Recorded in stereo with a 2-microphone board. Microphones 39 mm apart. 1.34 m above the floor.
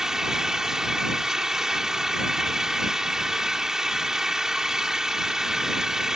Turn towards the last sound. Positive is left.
turn(degrees=-15)  # may be behind; listen again after turning